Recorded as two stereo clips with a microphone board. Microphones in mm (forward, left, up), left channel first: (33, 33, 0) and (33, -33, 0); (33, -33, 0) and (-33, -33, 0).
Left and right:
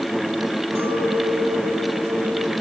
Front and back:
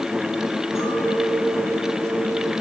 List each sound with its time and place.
0.8 s a clink: 45° right, 7 m